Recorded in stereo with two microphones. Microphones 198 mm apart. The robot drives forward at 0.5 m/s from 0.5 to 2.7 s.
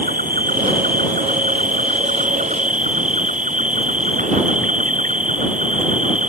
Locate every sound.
0.0 s an insect: 45° right (ahead or behind); by 6.3 s 40° right (ahead or behind)